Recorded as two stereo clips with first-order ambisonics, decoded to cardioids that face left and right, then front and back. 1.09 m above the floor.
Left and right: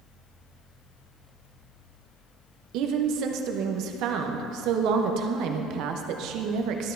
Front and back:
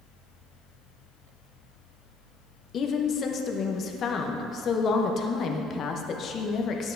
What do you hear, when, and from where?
2.7 s a woman speaking: 55° right, 0.8 m